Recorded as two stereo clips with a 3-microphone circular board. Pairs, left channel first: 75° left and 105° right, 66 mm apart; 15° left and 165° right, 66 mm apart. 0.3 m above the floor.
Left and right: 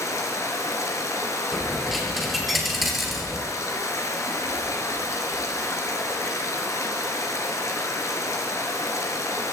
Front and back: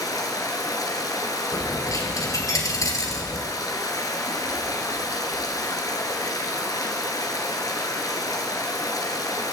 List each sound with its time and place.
0.0 s running water: 35° left, 2.5 m
1.5 s a dropped coin: 15° right, 3 m